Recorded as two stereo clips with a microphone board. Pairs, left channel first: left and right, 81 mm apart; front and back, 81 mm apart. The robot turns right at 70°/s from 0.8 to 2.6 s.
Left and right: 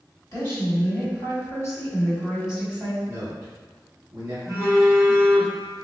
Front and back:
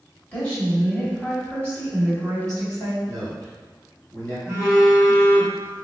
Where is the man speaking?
70° right, 1.9 m.